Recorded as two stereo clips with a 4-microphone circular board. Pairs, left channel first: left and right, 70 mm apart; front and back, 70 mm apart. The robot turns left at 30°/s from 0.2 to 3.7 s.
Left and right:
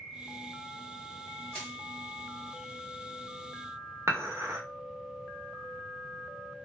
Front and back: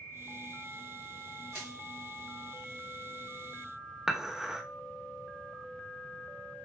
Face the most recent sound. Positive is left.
turn(degrees=-100)